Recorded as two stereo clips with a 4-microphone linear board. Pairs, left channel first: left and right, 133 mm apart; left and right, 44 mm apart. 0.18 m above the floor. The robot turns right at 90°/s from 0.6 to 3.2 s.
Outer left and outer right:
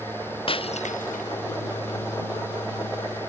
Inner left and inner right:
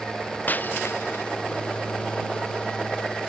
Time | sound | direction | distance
0.5 | breaking glass | 45° left (ahead or behind) | ?